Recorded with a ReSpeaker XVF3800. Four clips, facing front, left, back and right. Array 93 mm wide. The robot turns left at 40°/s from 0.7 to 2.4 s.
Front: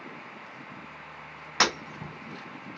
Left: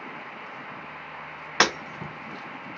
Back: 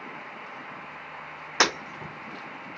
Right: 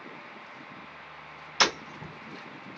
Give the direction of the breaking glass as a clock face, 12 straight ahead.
8 o'clock.